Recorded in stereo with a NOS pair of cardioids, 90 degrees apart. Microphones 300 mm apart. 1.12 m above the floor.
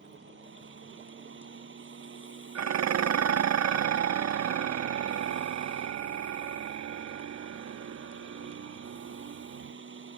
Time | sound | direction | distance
0.0 | a fan | 40° right | ?
2.5 | dishes clattering | 60° right | ?